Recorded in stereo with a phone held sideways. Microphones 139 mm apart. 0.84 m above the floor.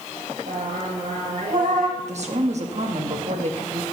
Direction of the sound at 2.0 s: 55° right (ahead or behind).